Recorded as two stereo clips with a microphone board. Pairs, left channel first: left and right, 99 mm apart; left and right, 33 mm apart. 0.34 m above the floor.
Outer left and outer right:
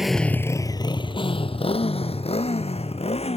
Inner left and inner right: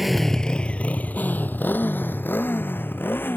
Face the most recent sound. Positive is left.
turn(degrees=80)